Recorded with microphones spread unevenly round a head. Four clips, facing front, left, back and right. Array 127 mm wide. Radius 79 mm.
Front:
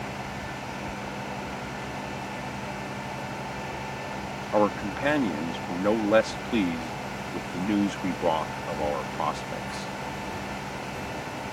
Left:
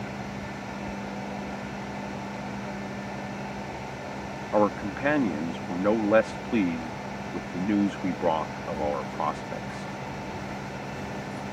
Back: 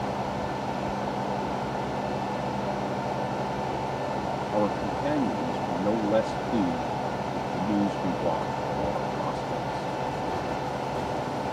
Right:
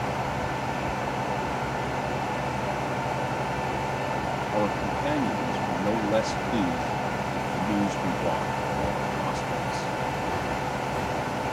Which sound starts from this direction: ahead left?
A man speaking, at 4.5 s.